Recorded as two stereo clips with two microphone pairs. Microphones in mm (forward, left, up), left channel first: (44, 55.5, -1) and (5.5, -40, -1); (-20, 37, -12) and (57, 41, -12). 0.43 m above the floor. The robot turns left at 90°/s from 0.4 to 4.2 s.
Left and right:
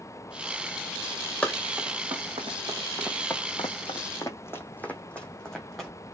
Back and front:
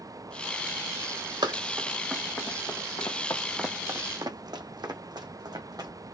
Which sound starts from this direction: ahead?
Running footsteps, at 1.4 s.